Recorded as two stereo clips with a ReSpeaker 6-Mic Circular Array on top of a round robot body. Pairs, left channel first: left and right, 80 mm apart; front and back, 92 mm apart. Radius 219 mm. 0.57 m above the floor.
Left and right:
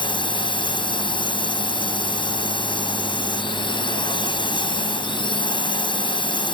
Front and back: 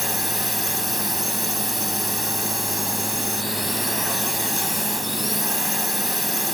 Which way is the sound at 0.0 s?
90° left.